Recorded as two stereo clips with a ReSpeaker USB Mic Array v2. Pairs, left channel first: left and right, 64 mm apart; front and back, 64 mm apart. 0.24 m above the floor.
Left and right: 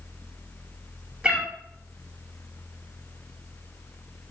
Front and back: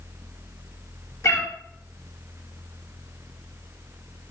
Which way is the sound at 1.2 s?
15° right.